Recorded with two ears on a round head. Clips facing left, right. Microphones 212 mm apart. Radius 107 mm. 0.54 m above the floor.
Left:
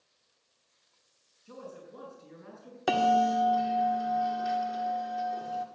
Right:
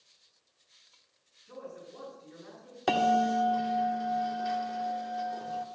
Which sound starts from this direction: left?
A man speaking, at 1.4 s.